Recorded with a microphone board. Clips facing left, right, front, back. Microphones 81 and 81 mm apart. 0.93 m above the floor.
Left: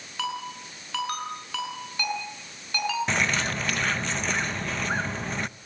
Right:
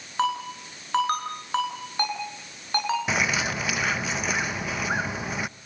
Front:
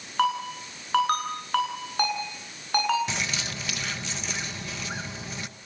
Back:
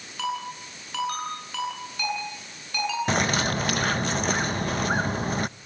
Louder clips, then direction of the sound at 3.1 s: Right 1 dB, back 9 dB; 170° right.